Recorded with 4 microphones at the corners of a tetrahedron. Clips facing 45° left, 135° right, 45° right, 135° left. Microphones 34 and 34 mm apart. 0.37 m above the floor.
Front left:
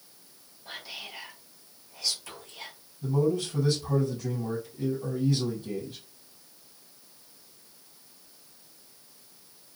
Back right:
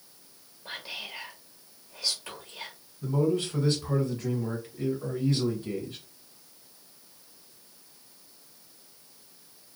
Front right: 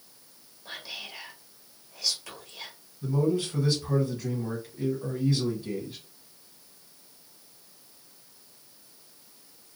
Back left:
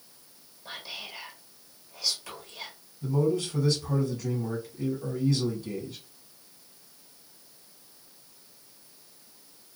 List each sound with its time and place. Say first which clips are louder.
0.7 s whispering: back right 2 dB, even; 140° right, 1.4 m
3.0 s a man speaking: even, even; 105° right, 2.0 m